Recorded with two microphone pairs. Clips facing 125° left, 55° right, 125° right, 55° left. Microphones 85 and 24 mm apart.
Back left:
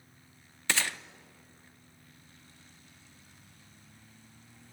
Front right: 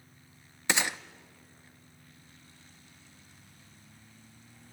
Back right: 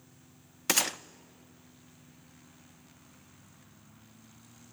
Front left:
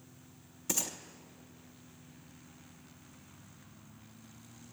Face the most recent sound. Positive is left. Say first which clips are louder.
# front right 2 dB, back right 8 dB
turn(degrees=-130)